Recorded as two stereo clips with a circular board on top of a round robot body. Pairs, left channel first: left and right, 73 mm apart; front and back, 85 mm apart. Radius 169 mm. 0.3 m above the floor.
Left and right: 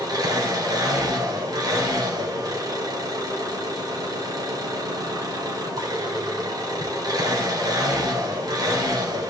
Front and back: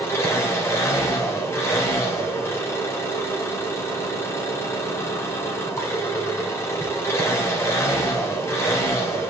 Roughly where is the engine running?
Ahead right.